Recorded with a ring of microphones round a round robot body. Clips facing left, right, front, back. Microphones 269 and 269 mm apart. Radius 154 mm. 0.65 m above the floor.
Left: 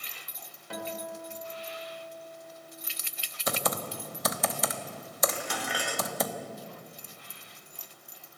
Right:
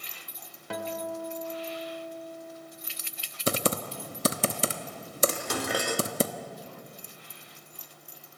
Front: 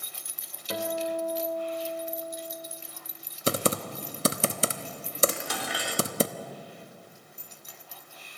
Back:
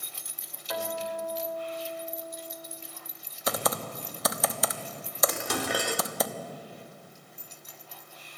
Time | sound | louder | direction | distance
0.7 | a guitar | right 4 dB, front 3 dB | 60° right | 2.5 m
3.5 | typing on a keyboard | right 4 dB, front 4 dB | 45° right | 1.0 m
5.3 | dishes clattering | right 5 dB, back 4 dB | 135° right | 1.2 m